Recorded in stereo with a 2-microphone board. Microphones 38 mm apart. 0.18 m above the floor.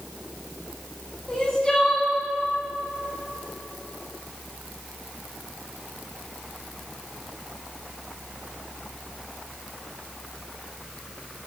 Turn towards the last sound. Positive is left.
turn(degrees=20)  # may be behind; listen again after turning